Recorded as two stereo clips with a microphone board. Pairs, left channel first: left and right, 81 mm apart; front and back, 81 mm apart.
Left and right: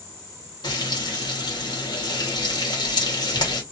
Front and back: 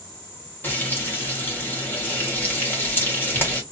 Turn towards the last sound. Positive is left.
turn(degrees=65)